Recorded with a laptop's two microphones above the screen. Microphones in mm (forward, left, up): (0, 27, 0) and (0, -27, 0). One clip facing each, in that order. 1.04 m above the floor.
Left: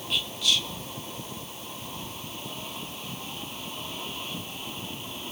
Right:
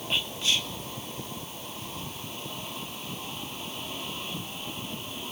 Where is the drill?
I don't hear a drill.